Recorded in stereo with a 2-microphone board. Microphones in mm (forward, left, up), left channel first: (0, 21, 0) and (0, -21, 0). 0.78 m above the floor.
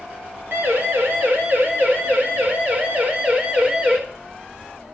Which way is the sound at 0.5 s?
60° right (ahead or behind).